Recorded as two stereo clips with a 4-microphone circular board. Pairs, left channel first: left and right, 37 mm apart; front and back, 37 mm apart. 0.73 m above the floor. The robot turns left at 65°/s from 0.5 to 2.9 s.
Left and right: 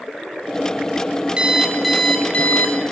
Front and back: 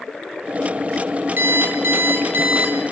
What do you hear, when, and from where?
1.4 s an alarm clock: 155° right, 1.5 m; by 2.8 s 115° left, 1.5 m